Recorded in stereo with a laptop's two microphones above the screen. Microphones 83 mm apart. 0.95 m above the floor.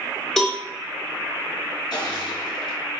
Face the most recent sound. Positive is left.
turn(degrees=55)  # may be behind; listen again after turning